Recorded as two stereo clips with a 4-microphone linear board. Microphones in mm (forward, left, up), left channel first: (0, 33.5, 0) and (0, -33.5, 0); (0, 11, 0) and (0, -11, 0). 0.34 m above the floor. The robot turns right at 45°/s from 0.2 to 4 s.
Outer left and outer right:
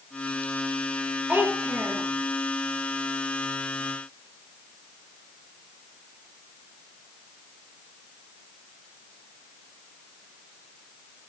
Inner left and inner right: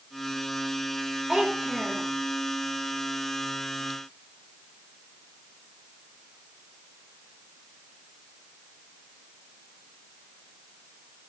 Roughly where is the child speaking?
Behind.